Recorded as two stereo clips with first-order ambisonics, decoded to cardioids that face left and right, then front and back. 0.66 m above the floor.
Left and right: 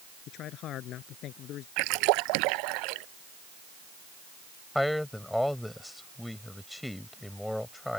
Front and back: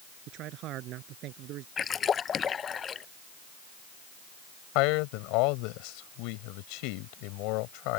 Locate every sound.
0.3 s a man speaking: 140° left
1.8 s a splash: 70° right
4.8 s a man speaking: 5° left